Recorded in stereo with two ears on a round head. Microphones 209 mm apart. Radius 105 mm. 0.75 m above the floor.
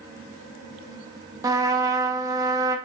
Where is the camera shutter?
I don't hear a camera shutter.